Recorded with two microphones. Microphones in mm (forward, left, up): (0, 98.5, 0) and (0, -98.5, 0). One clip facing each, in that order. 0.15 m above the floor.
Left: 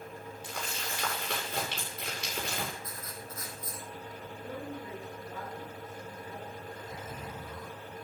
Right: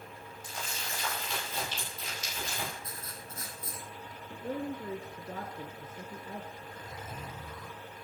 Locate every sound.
0.4 s crumpling: 85° left, 8 m
2.8 s writing: 30° right (ahead or behind), 2.5 m
4.3 s a man speaking: 55° right (ahead or behind), 1.7 m
6.6 s a zipper: 5° left (ahead or behind), 7.5 m